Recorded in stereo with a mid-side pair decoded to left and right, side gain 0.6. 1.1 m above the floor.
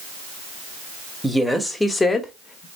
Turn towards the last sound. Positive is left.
turn(degrees=35)